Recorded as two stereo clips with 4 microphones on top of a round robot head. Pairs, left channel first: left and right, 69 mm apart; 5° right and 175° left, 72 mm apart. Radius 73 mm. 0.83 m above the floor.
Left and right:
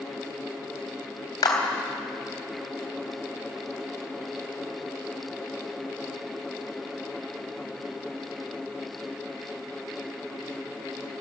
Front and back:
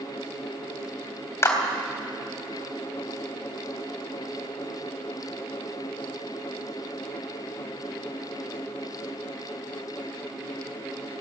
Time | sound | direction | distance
1.4 | a clap | 45° left | 3.5 m